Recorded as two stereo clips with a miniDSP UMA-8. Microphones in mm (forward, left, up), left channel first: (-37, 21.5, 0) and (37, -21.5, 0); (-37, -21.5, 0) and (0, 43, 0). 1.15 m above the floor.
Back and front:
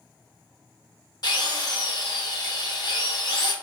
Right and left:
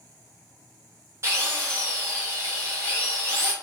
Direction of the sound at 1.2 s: 115° left.